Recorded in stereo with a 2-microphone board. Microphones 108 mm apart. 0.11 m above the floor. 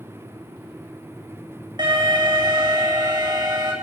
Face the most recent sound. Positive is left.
turn(degrees=-40)  # may be behind; listen again after turning